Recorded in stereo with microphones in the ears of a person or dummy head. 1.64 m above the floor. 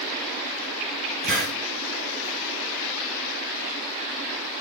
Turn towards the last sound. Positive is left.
turn(degrees=55)  # may be behind; listen again after turning